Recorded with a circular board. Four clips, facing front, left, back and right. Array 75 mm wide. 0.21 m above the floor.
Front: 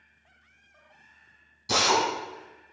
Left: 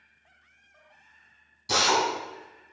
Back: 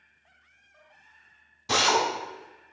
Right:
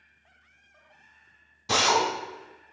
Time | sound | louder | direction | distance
1.7 | a drill | right 1 dB, even | 135° right | 1.2 m